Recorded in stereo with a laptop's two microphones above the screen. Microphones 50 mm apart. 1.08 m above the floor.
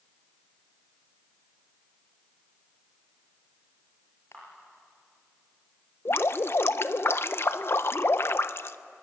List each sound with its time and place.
4.3 s a camera shutter: 65° left (ahead or behind), 6.5 m
6.0 s dripping: 55° left (ahead or behind), 0.6 m